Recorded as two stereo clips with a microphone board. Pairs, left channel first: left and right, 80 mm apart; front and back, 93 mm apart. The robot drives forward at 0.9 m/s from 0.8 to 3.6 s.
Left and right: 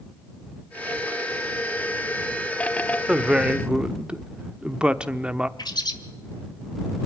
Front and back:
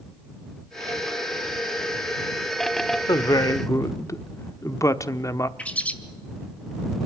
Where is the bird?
75° left, 1.5 m.